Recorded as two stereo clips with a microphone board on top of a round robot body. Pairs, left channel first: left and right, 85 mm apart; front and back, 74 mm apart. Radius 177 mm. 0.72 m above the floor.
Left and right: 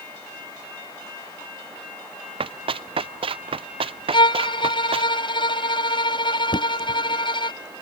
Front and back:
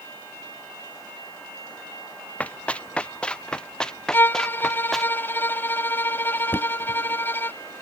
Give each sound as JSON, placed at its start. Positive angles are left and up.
{"t": 2.4, "sound": "running footsteps", "azimuth_deg": -75}
{"t": 4.1, "sound": "a violin", "azimuth_deg": 60}
{"t": 6.5, "sound": "knocking", "azimuth_deg": 60}